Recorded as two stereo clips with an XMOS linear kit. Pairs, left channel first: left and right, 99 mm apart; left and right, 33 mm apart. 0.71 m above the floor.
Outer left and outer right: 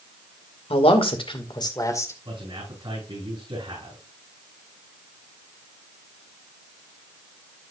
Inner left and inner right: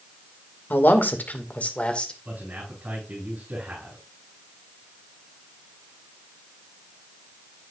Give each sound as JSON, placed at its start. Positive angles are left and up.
{"t": 0.7, "sound": "a man speaking", "side_deg": 75, "distance_m": 2.0}
{"t": 2.2, "sound": "a man speaking", "side_deg": -45, "distance_m": 8.0}